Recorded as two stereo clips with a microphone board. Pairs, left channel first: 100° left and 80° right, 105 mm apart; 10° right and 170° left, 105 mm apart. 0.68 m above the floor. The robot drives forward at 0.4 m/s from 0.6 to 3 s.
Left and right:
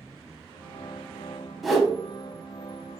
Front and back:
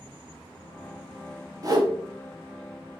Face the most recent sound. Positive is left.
turn(degrees=-175)